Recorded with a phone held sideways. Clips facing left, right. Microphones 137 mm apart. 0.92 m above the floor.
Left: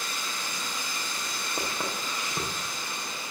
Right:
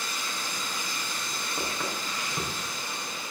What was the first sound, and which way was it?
Footsteps, 25° left (ahead or behind).